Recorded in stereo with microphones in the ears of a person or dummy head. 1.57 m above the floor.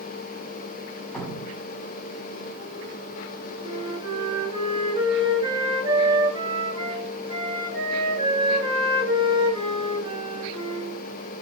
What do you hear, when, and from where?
1.1 s dripping: 5° left (ahead or behind), 4.5 m
3.6 s a flute: 30° right (ahead or behind), 10 m